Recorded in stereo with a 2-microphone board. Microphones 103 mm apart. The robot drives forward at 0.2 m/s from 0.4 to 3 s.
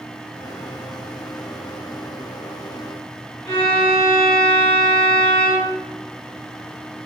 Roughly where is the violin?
Left.